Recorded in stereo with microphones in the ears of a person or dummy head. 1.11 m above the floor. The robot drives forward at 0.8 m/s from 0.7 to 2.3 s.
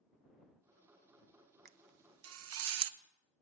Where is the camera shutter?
50° right (ahead or behind), 0.8 m; by 3.0 s 75° right (ahead or behind), 0.6 m.